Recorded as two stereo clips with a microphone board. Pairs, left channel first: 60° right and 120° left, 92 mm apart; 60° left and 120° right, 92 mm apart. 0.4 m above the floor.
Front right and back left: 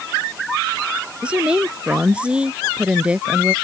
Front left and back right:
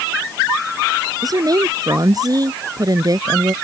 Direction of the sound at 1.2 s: 165° right.